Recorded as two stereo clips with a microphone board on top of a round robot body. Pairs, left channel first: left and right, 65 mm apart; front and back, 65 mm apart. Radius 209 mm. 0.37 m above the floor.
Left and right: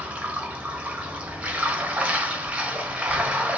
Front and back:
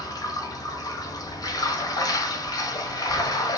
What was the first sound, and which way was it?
Running water, 15° right.